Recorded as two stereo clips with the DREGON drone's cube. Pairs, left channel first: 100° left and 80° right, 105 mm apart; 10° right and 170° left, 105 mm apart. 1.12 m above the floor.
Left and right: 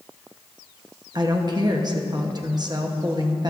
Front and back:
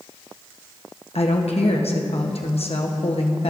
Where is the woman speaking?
30° right, 1.0 m.